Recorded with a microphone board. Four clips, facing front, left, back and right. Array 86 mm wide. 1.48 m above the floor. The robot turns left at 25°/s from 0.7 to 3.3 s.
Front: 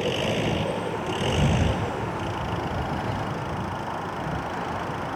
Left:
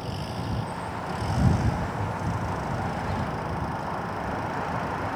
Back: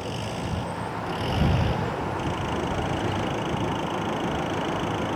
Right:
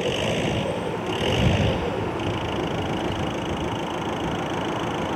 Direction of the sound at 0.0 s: 55° right.